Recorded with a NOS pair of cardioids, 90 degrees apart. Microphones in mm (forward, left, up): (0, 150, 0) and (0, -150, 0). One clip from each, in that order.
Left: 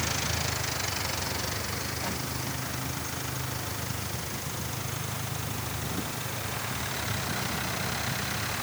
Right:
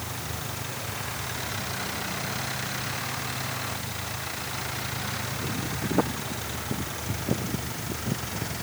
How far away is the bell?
No bell in this recording.